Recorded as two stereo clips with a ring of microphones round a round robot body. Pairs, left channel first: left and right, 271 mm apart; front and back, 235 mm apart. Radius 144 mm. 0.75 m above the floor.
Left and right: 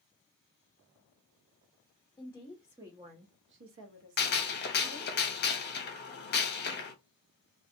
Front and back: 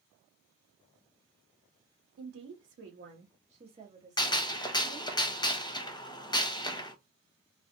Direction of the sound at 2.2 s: 165° left.